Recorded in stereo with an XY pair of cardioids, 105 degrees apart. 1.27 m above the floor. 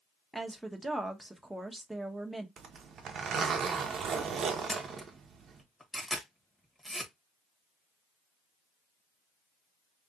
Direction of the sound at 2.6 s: 55° right.